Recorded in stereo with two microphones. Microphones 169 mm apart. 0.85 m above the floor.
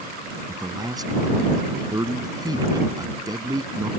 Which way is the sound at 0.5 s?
25° right (ahead or behind).